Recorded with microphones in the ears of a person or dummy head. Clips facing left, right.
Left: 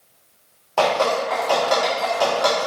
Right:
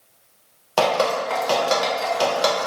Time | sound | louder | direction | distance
0.8 | dripping | left 1 dB | 50° right (ahead or behind) | 0.5 m